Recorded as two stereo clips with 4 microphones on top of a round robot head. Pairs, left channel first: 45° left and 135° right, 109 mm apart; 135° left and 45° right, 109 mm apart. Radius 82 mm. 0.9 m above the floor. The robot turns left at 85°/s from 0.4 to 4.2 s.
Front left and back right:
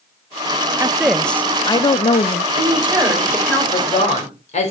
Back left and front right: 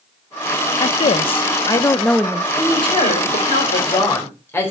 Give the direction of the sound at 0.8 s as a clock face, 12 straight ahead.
6 o'clock.